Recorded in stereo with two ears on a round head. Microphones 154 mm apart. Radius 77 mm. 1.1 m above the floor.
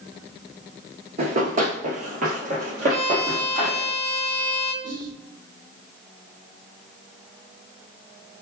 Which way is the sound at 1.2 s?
45° right (ahead or behind).